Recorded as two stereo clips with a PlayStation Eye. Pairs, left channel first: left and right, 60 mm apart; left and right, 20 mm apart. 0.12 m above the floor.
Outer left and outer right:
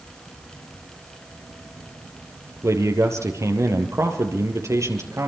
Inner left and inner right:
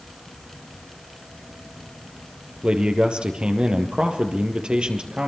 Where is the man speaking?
55° right (ahead or behind), 3.5 m.